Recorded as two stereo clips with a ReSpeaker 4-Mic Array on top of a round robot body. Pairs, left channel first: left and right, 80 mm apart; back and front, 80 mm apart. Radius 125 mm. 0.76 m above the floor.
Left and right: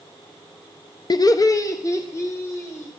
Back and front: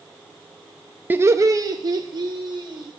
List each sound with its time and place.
1.1 s laughter: 65° left, 0.5 m; by 2.9 s 30° left, 1.8 m